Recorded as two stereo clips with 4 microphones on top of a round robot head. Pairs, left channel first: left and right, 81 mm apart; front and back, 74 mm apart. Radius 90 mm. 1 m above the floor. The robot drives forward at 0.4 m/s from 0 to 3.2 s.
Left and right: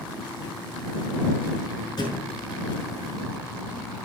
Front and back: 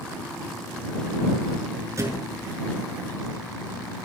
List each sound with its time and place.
2.0 s a thud: 135° left, 6 m